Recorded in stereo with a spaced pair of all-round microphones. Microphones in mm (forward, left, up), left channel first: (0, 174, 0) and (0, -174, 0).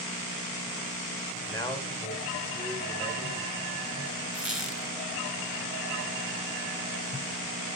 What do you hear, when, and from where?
1.5 s a man speaking: 10° left (ahead or behind), 3.5 m; by 3.7 s 20° left (ahead or behind), 6.5 m
4.3 s a squeak: centre (ahead or behind), 4 m